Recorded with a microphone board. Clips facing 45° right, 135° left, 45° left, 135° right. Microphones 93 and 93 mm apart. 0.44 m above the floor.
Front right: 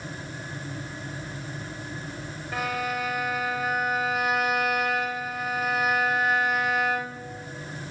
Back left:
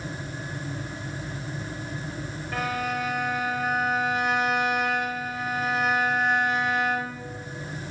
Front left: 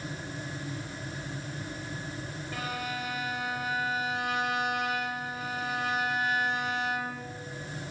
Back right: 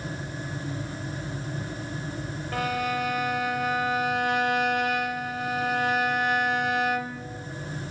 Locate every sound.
2.5 s a violin: 130° right, 1.3 m